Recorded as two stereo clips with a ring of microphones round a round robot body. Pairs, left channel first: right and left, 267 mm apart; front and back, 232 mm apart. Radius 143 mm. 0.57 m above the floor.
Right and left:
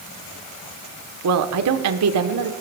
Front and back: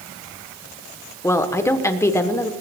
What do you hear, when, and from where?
1.2 s a woman speaking: 80° left, 1.6 m